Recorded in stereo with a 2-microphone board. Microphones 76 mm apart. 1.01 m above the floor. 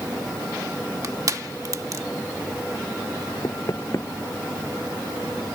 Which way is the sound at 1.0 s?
50° right (ahead or behind).